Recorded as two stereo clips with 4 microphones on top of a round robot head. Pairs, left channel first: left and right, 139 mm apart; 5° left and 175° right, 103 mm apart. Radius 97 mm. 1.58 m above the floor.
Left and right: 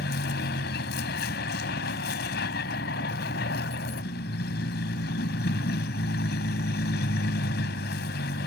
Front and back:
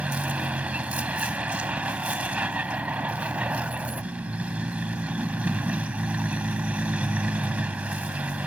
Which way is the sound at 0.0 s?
105° left.